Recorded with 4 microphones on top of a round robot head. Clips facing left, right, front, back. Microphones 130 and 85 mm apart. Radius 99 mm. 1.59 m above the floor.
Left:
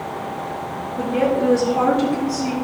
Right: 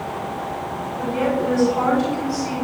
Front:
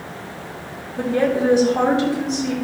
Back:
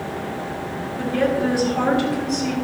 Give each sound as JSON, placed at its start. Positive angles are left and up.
{"t": 1.0, "sound": "a woman speaking", "azimuth_deg": 60, "distance_m": 4.5}